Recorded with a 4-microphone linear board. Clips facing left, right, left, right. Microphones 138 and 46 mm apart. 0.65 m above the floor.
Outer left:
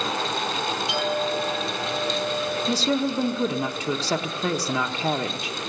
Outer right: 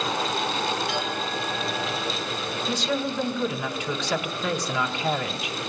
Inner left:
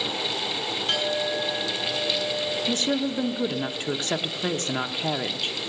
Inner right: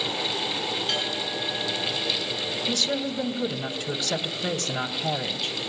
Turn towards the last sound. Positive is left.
turn(degrees=35)  # may be behind; listen again after turning